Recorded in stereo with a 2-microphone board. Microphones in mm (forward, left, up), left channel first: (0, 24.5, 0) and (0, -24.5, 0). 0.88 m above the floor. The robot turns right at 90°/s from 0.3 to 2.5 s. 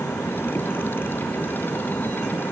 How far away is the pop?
No pop in this recording.